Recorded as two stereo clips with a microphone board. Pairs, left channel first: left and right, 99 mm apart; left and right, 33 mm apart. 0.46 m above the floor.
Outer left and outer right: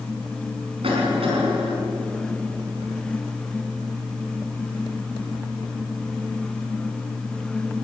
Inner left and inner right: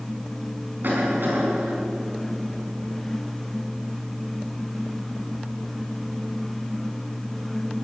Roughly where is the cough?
Right.